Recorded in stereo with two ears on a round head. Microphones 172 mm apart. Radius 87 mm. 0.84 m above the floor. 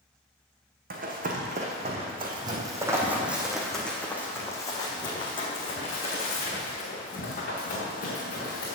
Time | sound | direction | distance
0.9 | running footsteps | 45° right (ahead or behind) | 2.0 m